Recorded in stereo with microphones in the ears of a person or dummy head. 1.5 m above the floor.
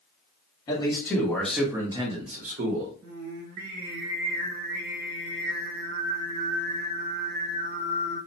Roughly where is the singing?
Right.